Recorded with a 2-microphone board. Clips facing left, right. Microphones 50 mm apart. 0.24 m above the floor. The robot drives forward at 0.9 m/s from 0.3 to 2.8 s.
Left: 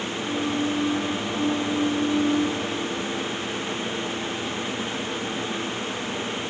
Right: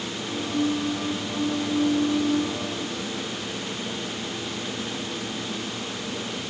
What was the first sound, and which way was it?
Only background noise.